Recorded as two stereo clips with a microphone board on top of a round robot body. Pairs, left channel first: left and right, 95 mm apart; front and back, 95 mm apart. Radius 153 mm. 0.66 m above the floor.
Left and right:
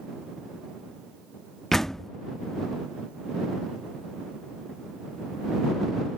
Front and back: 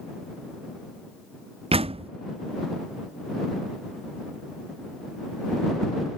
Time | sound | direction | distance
1.7 | a door slam | 175° left | ?